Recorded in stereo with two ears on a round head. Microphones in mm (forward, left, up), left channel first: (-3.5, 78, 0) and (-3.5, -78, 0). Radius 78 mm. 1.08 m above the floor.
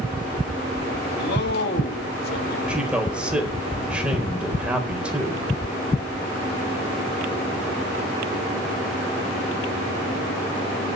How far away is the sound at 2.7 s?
About 4 m.